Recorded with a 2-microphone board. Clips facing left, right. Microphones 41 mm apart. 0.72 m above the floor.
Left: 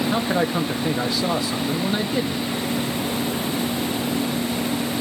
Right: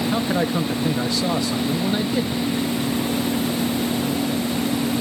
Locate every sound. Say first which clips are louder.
0.1 s a man speaking: even; 10° left (ahead or behind), 0.5 m